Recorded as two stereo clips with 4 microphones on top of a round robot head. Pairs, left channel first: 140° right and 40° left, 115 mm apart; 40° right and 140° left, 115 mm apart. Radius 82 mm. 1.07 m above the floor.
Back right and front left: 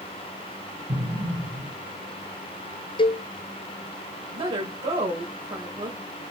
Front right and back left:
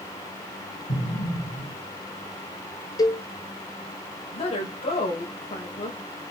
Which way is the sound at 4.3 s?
5° right.